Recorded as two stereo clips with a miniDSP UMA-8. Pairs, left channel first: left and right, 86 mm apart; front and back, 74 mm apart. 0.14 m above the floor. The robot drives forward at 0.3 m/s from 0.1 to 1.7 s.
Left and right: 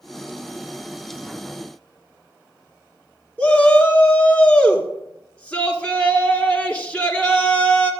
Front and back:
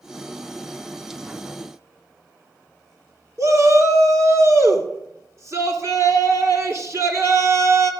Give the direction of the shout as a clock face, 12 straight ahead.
7 o'clock.